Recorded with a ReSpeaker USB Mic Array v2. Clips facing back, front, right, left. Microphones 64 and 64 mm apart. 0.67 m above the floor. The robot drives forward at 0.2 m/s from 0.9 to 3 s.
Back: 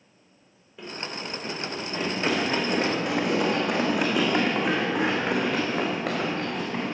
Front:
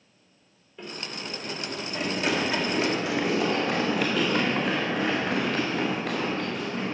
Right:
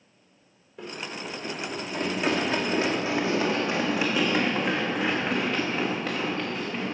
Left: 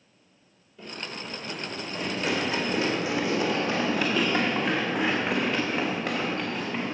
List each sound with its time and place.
0.8 s running footsteps: 100° right, 2 m; by 7.0 s 165° left, 3 m